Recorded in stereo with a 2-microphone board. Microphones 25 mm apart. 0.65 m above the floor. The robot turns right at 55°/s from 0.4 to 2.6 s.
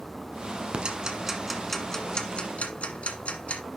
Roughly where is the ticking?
Right.